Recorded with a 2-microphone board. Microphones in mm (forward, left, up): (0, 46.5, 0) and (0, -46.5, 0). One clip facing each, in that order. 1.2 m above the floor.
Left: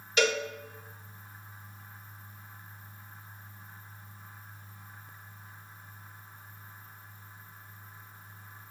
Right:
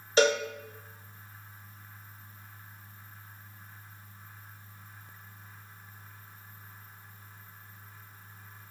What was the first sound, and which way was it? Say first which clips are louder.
A cowbell: right 4 dB; 30° right (ahead or behind).